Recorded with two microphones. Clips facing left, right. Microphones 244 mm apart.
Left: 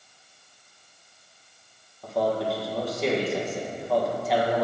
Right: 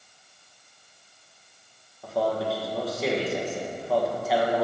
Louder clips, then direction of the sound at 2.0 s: Left 1 dB; centre (ahead or behind).